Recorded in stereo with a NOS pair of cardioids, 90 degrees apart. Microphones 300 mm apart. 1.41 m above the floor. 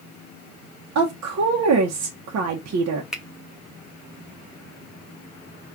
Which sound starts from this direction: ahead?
A finger snap, at 3.1 s.